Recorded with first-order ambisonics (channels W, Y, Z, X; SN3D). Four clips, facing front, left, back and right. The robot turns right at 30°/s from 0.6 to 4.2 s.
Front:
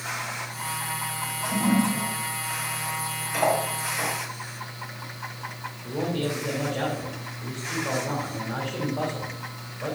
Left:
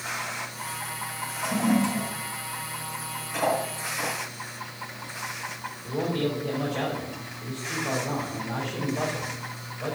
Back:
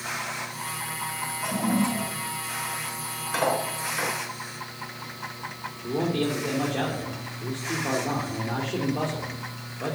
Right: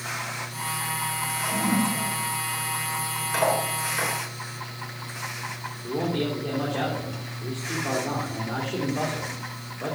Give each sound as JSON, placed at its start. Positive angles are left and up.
{"t": 1.4, "sound": "a toilet flushing", "azimuth_deg": 115, "distance_m": 5.0}
{"t": 3.3, "sound": "cutlery clinking", "azimuth_deg": -145, "distance_m": 5.5}
{"t": 5.8, "sound": "a man speaking", "azimuth_deg": -145, "distance_m": 3.0}